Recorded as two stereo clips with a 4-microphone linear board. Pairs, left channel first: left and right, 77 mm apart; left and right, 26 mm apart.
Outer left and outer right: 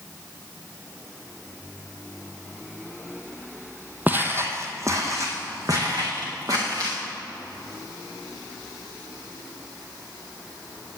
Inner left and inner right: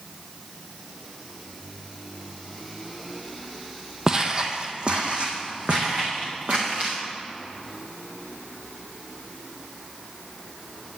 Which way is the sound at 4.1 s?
25° right (ahead or behind).